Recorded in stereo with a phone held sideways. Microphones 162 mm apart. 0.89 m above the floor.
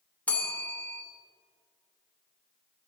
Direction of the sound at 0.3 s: 10° left (ahead or behind).